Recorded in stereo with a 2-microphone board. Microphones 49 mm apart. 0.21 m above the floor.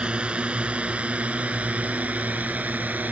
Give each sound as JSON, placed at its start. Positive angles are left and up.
{"t": 0.0, "sound": "a drone", "side_deg": -25}